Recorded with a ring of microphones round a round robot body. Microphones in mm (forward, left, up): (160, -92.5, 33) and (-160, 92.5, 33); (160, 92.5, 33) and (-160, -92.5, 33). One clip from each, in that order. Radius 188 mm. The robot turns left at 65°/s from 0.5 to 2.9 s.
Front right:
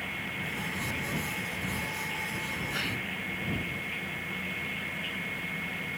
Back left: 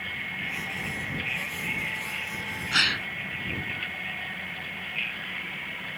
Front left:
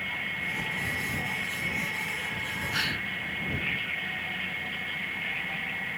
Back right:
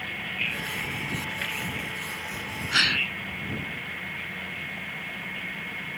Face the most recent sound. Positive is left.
turn(degrees=140)